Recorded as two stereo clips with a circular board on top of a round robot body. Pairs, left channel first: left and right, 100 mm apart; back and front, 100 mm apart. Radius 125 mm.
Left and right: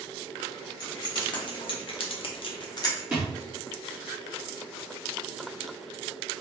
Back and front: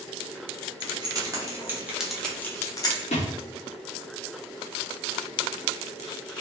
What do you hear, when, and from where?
0.8 s keys jangling: 45° left, 1.5 m; by 3.0 s 140° left, 0.9 m
3.1 s a thud: 170° right, 0.6 m